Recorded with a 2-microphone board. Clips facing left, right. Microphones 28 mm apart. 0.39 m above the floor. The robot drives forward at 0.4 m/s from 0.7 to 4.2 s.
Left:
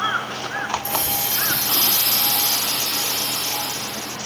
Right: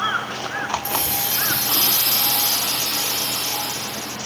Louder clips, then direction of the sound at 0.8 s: Even; 40° right (ahead or behind).